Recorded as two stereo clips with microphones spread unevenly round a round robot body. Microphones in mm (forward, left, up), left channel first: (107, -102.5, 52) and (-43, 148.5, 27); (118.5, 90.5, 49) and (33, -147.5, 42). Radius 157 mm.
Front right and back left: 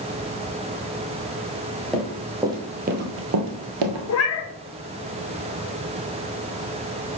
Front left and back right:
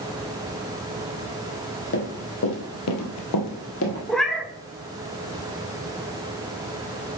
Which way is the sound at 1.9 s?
30° left.